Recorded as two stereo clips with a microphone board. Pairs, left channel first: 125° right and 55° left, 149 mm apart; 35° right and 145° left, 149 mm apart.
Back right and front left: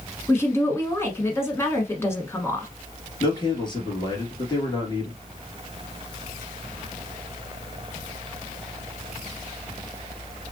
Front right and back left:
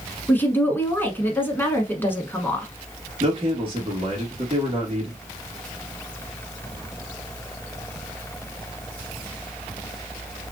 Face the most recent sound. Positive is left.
turn(degrees=-175)